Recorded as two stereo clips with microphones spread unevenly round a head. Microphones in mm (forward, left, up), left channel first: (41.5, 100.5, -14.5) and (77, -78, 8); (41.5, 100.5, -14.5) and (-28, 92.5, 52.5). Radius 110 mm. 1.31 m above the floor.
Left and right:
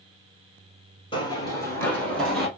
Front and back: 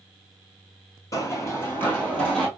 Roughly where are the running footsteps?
Behind left.